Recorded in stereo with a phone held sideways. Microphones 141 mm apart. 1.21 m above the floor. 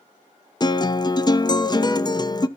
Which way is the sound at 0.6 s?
30° left (ahead or behind).